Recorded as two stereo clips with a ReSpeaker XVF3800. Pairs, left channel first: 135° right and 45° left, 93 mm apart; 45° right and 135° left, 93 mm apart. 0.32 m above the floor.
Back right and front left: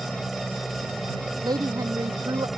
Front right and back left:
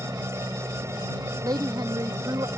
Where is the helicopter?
135° left.